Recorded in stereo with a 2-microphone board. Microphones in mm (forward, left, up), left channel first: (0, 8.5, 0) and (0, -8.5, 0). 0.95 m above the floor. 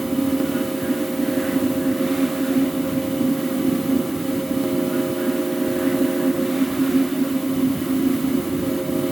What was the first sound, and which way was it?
Only background noise.